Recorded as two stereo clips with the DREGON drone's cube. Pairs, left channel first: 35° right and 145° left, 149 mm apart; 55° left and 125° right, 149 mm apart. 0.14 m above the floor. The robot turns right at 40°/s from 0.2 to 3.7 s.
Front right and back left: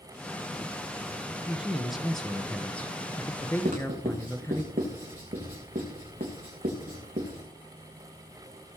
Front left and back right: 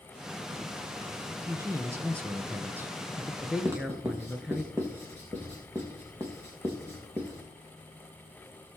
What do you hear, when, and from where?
1.4 s a man speaking: 145° right, 1.0 m; by 4.7 s 55° right, 1.0 m
3.6 s writing: 165° left, 3 m